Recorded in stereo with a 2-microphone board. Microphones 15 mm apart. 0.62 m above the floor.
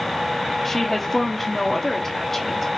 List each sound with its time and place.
0.7 s a woman speaking: 20° left (ahead or behind), 0.9 m